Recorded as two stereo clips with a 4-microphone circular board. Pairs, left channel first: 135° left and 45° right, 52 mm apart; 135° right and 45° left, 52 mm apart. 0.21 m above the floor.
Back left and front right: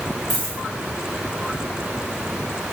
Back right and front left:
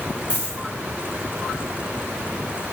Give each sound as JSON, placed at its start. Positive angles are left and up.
{"t": 0.3, "sound": "a dropped coin", "azimuth_deg": -145, "distance_m": 4.0}